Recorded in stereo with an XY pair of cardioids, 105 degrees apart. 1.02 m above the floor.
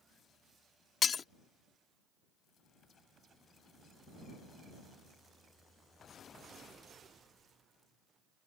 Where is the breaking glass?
45° left.